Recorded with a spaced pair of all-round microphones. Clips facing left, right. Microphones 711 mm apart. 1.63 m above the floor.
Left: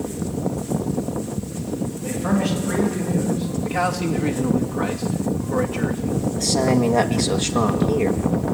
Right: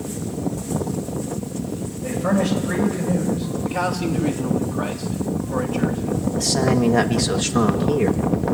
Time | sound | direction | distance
2.0 | a man speaking | 15° right (ahead or behind) | 6.5 m
3.6 | a man speaking | 50° left (ahead or behind) | 3 m
6.4 | a man speaking | 45° right (ahead or behind) | 1.5 m